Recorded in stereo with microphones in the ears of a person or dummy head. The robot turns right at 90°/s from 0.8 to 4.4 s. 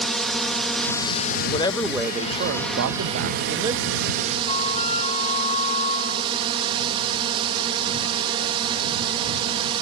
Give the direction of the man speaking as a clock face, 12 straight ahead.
7 o'clock.